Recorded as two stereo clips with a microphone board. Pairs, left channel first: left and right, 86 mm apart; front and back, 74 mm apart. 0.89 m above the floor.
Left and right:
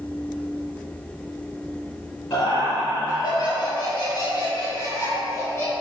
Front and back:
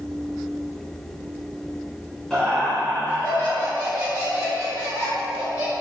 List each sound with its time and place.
2.3 s laughter: 80° left, 1.0 m; by 5.7 s 25° left, 2.5 m